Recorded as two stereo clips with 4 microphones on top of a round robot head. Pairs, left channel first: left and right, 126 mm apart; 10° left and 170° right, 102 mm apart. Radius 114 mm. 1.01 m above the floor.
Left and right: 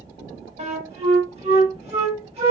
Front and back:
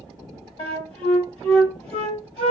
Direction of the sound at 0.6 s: 45° right.